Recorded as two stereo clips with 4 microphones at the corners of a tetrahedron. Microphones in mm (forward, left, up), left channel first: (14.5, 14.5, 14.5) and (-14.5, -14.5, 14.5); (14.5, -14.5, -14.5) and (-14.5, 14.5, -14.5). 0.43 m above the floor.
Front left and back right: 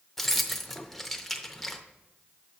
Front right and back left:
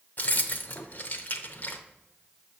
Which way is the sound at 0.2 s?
40° right.